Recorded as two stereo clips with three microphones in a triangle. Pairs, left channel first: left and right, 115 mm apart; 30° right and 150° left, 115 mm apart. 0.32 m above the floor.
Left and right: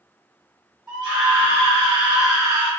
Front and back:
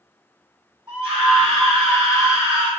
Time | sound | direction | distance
0.9 | a scream | 130° right | 2.0 m